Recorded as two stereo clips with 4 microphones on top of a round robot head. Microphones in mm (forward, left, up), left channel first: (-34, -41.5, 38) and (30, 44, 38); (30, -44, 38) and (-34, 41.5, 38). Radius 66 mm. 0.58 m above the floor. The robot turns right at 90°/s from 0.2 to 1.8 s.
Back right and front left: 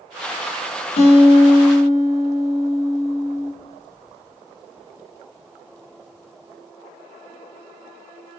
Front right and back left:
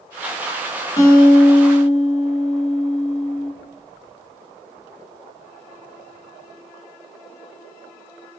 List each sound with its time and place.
1.0 s a guitar: 110° right, 0.7 m; by 3.5 s 35° right, 0.7 m